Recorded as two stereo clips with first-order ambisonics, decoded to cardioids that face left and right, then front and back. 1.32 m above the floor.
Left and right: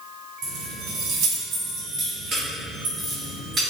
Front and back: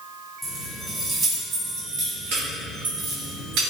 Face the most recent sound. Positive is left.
turn(degrees=-165)